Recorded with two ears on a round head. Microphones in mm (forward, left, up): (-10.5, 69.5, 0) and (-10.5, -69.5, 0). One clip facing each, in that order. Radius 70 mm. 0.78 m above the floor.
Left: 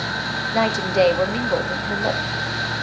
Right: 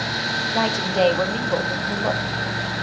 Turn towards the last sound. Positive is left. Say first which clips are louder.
# left 3 dB
turn(degrees=10)  # may be behind; listen again after turning